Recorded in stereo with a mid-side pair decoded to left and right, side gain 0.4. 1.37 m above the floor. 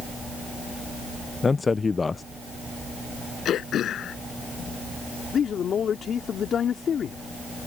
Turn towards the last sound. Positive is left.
turn(degrees=60)